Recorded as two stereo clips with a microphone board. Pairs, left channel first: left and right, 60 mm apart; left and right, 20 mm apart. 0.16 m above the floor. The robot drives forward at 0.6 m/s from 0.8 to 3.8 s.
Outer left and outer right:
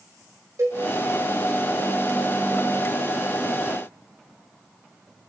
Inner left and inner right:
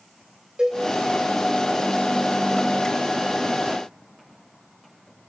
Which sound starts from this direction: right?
A cowbell, at 0.6 s.